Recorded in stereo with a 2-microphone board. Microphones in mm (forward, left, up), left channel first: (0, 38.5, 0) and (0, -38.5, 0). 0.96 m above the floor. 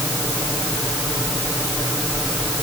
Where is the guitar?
I don't hear a guitar.